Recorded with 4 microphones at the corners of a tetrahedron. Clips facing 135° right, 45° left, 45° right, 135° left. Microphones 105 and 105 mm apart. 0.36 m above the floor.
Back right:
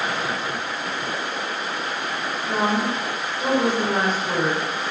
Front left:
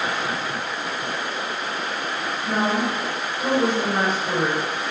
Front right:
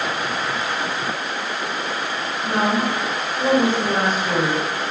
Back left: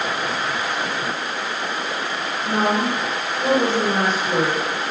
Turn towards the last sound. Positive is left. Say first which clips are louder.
# even, even
turn(degrees=-40)